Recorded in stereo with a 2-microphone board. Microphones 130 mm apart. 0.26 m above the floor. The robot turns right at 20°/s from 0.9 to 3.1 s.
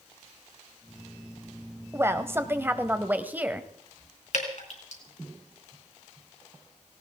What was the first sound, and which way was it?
A woman speaking, 20° right (ahead or behind).